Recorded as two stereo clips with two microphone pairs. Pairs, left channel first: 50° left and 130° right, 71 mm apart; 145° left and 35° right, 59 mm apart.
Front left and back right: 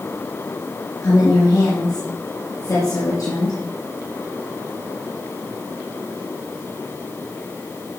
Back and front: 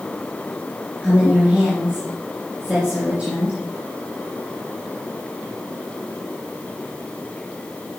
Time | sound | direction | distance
1.0 | a woman speaking | 35° left | 2.5 m